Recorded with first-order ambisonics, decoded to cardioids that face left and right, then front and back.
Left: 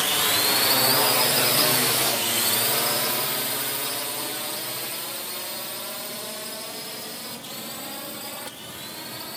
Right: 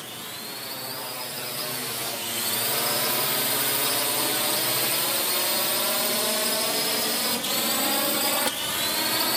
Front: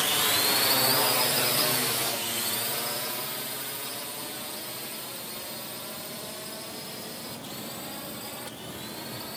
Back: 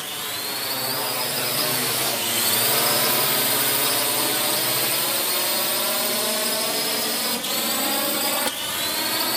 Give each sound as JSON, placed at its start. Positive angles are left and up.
{"t": 0.0, "sound": "a drone", "azimuth_deg": 70}